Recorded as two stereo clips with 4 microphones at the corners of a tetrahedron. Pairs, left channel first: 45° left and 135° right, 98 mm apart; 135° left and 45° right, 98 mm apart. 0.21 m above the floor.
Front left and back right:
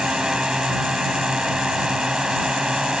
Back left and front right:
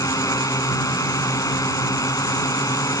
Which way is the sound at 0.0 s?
145° left.